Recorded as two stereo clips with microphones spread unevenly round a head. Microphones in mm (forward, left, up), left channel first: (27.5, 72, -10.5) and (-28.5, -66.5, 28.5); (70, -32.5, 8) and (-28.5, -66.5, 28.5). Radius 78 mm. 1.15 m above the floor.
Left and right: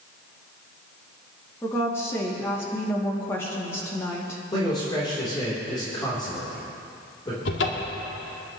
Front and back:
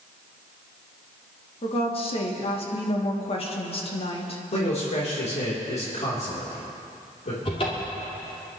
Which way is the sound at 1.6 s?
5° right.